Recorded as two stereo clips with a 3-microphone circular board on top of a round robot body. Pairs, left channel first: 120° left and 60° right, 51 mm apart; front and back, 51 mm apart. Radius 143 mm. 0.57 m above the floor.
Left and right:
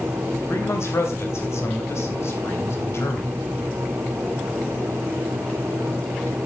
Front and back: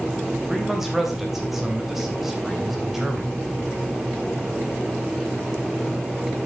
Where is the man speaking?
95° left, 3.5 m.